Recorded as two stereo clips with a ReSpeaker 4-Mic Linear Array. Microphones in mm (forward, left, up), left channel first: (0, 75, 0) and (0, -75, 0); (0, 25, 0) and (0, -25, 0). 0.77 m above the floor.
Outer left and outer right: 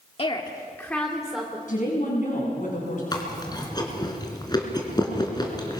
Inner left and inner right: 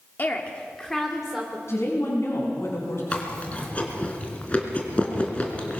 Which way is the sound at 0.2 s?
40° left (ahead or behind).